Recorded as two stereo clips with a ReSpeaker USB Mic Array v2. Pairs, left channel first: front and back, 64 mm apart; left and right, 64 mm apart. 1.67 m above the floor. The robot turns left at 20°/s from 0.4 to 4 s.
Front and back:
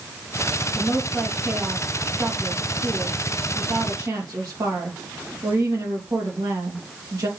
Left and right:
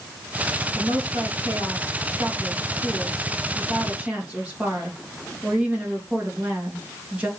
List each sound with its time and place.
0.8 s a woman speaking: 95° right, 3 m; by 7.3 s 160° right, 3 m